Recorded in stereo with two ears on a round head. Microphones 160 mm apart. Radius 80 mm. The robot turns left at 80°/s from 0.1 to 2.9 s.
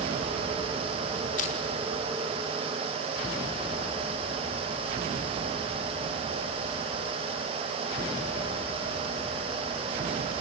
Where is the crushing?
50° left (ahead or behind), 5 m; by 1.6 s 35° left (ahead or behind), 5 m.